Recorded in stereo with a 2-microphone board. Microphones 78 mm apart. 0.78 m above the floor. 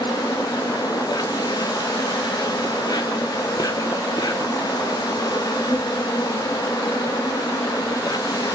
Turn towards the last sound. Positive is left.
turn(degrees=60)  # may be behind; listen again after turning